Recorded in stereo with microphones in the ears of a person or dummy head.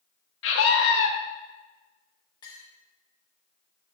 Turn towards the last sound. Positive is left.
turn(degrees=20)  # may be behind; listen again after turning